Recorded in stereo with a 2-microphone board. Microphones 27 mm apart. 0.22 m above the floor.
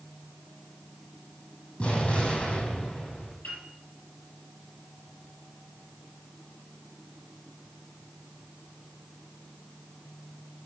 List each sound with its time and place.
1.8 s an explosion: 50° left (ahead or behind), 4 m
3.4 s a piano: 75° left (ahead or behind), 5 m